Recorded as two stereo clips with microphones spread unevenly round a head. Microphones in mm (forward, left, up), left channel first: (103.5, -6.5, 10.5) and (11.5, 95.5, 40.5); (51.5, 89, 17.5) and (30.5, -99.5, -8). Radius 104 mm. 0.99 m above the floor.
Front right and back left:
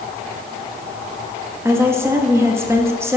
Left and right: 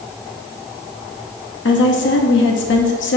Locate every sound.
1.6 s a woman speaking: 55° left, 1.1 m